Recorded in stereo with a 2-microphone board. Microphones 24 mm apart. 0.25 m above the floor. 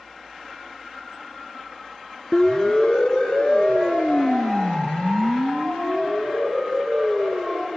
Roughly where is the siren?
Left.